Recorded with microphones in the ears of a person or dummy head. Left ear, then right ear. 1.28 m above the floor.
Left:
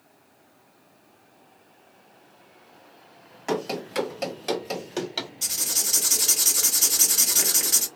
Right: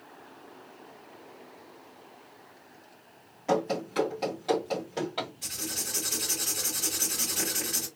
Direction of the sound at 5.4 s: 75° left (ahead or behind).